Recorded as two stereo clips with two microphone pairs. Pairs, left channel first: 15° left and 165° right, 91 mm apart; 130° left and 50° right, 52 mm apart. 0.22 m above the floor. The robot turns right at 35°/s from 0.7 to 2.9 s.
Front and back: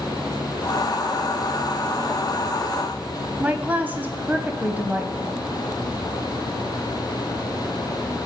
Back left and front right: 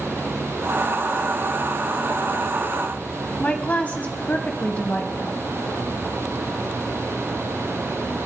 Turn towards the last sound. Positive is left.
turn(degrees=145)